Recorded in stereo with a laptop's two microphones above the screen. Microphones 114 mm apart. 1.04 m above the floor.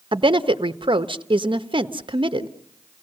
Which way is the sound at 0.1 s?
50° right (ahead or behind).